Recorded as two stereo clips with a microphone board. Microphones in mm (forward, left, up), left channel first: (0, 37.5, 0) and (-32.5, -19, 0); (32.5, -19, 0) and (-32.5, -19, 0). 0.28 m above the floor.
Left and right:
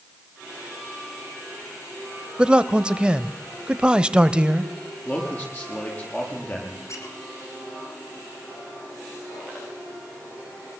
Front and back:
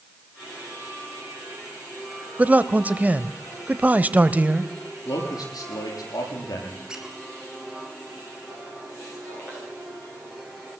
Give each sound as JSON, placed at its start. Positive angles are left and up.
{"t": 2.4, "sound": "a man speaking", "azimuth_deg": -170, "distance_m": 0.9}
{"t": 5.0, "sound": "a man speaking", "azimuth_deg": -5, "distance_m": 7.5}
{"t": 6.9, "sound": "a squeak", "azimuth_deg": 100, "distance_m": 4.0}